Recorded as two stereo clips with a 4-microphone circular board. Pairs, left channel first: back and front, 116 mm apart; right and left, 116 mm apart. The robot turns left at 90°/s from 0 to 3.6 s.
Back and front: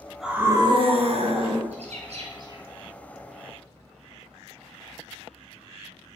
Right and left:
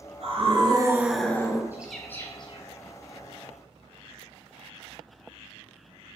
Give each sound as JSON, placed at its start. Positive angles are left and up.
{"t": 0.2, "sound": "a scream", "azimuth_deg": 90, "distance_m": 2.5}
{"t": 1.7, "sound": "a bird", "azimuth_deg": 20, "distance_m": 2.5}